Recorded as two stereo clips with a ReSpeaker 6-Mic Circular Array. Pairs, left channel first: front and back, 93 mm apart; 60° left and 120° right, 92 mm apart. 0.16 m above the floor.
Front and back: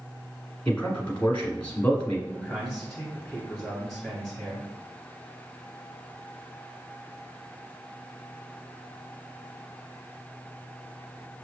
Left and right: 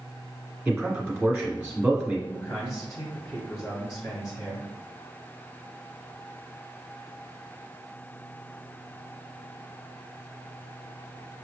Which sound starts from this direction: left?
A man speaking, at 2.3 s.